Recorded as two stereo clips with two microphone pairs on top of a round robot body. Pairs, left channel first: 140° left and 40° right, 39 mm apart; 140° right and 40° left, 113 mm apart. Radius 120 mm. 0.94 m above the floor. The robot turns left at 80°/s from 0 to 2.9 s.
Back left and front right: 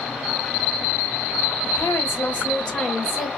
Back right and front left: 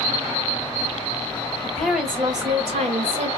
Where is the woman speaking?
150° left, 1.5 m; by 3.3 s 50° left, 1.5 m.